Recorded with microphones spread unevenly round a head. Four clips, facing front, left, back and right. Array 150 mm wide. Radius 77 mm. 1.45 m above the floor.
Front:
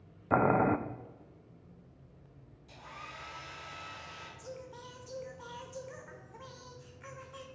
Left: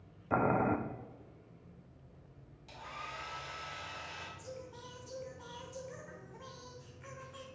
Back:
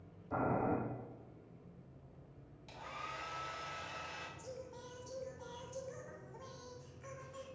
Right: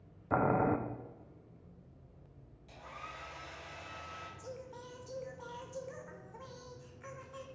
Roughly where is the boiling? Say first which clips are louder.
Even, front 9 dB; ahead.